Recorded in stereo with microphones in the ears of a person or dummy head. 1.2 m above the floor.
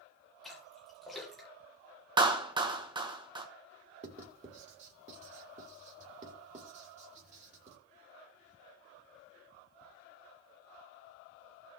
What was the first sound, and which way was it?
A splash, 5° right (ahead or behind).